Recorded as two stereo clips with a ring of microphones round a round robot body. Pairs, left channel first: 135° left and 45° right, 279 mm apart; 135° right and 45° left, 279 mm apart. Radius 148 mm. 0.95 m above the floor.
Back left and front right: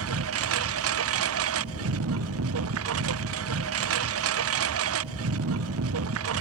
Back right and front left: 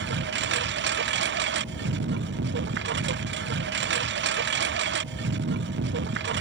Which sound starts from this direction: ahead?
A lawn mower, at 0.0 s.